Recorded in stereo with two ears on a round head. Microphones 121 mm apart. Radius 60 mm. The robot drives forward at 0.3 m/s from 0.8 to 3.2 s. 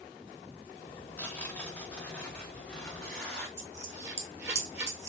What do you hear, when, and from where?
1.2 s tearing paper: 15° left (ahead or behind), 0.6 m; by 3.5 s 10° left (ahead or behind), 1.0 m
3.6 s a dropped coin: 20° right (ahead or behind), 1.0 m